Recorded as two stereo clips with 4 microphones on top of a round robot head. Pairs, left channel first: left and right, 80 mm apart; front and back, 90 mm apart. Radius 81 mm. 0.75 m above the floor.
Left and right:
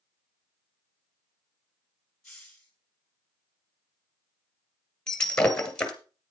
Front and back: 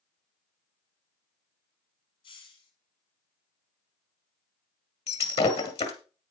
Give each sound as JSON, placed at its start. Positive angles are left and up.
{"t": 2.2, "sound": "a hiss", "azimuth_deg": 10, "distance_m": 4.5}
{"t": 5.1, "sound": "breaking glass", "azimuth_deg": 10, "distance_m": 1.8}